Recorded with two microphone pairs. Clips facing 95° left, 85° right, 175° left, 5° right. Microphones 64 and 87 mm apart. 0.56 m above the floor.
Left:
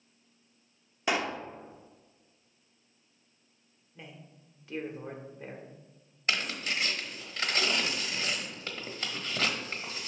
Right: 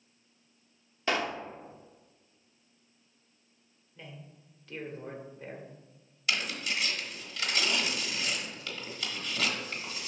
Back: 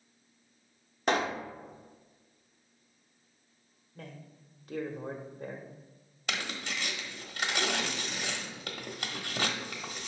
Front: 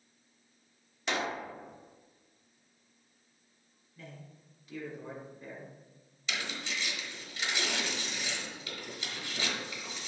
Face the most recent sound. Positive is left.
turn(degrees=145)